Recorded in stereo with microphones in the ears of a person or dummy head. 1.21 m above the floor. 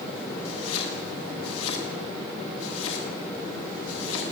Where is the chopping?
85° left, 8 m.